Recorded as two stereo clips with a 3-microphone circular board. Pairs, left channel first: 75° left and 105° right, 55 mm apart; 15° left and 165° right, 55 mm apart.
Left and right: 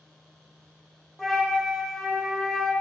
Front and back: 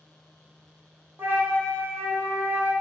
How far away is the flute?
About 0.6 m.